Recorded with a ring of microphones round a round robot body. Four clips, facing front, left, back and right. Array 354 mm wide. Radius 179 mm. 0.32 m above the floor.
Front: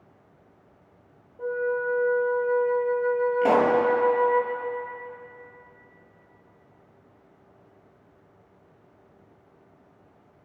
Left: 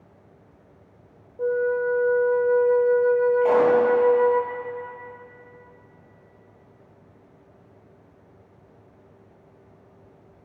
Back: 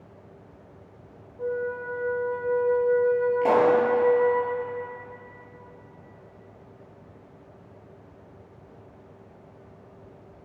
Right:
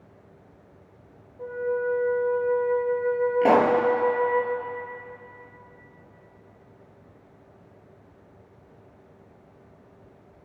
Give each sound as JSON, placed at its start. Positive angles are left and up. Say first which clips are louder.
{"t": 1.4, "sound": "a flute", "louder": "left 5 dB, front 3 dB", "azimuth_deg": 75, "distance_m": 2.0}
{"t": 3.4, "sound": "a pop", "louder": "right 2 dB, even", "azimuth_deg": -85, "distance_m": 4.5}